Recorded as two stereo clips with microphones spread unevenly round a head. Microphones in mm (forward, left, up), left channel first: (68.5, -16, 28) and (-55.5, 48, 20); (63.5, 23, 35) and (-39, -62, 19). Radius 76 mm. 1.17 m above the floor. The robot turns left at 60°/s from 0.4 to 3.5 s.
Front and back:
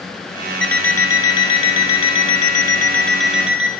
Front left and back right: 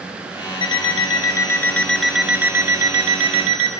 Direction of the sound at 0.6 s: 45° left.